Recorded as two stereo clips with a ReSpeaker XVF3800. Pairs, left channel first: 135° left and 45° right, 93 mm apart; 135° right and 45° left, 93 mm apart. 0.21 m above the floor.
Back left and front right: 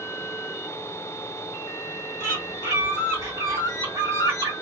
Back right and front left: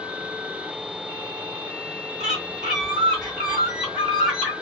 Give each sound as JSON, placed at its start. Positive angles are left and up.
{"t": 2.2, "sound": "a bird", "azimuth_deg": -35, "distance_m": 2.0}